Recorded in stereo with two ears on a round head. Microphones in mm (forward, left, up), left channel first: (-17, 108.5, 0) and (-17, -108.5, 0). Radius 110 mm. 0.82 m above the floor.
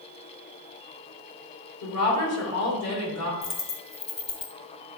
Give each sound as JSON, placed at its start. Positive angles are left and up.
{"t": 1.8, "sound": "a woman speaking", "side_deg": 65, "distance_m": 3.0}
{"t": 3.4, "sound": "a dropped coin", "side_deg": 25, "distance_m": 1.1}